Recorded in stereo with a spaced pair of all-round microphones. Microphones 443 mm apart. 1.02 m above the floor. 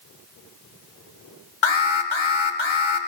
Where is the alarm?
80° left, 0.8 m.